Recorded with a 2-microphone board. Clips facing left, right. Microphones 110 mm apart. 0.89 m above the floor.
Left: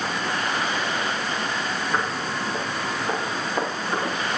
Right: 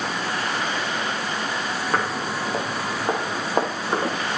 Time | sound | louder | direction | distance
1.9 | footsteps | right 3 dB | 50° right (ahead or behind) | 4.5 m